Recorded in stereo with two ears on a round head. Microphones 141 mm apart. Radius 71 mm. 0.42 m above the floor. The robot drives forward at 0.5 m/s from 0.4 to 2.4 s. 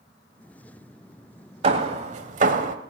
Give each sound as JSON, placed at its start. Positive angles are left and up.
{"t": 1.6, "sound": "hammering", "side_deg": -40, "distance_m": 1.4}